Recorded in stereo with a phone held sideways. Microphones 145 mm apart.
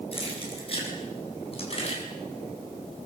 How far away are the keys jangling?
About 9 m.